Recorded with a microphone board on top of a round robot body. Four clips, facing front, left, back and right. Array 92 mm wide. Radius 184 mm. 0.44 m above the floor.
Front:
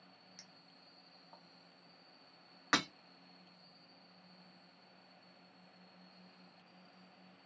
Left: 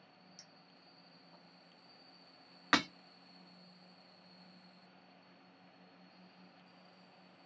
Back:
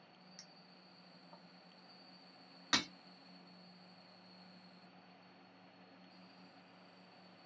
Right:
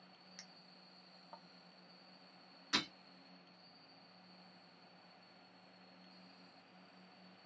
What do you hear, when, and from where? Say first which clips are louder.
0.4 s a clink: even, back 1 dB; 90° right, 1.4 m
2.7 s breaking glass: left 9 dB, front 4 dB; 60° left, 1.1 m